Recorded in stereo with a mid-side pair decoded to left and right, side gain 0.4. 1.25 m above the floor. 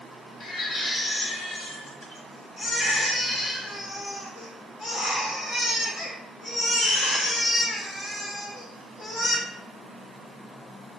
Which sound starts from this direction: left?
A baby crying, at 0.4 s.